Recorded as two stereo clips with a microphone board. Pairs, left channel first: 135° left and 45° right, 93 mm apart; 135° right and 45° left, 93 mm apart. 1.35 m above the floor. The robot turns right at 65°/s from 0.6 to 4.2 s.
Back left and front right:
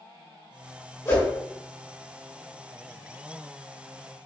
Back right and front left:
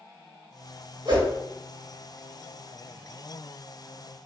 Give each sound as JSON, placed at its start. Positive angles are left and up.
{"t": 1.1, "sound": "a whoosh", "azimuth_deg": 70, "distance_m": 2.0}